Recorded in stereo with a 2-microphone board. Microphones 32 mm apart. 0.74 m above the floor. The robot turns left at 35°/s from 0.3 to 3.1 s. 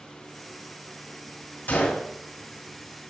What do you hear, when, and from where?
1.7 s a gunshot: 75° left (ahead or behind), 3 m; by 2.1 s 85° left, 3 m